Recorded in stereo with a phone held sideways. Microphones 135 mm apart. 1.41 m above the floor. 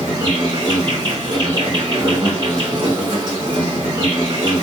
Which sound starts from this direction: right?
An insect, at 0.0 s.